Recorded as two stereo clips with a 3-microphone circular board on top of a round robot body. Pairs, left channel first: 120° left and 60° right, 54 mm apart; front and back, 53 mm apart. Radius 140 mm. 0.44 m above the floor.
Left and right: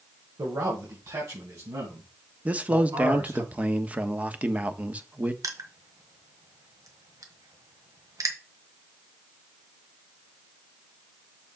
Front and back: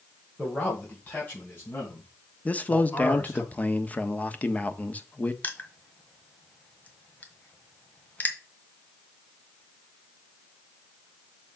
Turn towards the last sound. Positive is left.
turn(degrees=-60)